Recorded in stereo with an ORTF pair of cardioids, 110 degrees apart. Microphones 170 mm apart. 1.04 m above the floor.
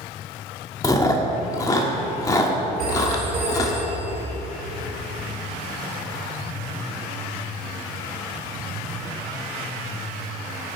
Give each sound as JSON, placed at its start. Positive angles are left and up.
{"t": 0.8, "sound": "chewing", "azimuth_deg": 20, "distance_m": 1.4}
{"t": 2.8, "sound": "a phone ringing", "azimuth_deg": -65, "distance_m": 2.5}